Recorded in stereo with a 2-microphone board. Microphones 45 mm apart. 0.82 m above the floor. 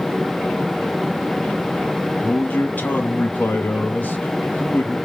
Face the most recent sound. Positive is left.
turn(degrees=40)  # may be behind; listen again after turning